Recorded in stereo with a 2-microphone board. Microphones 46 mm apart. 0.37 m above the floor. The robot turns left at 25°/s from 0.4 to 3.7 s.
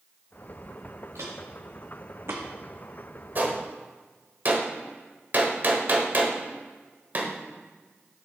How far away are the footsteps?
About 2 m.